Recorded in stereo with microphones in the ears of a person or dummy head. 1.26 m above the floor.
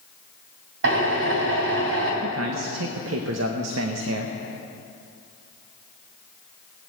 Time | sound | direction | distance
0.8 | a drill | 75° right (ahead or behind) | 3 m
2.2 | a man speaking | 75° right (ahead or behind) | 1.1 m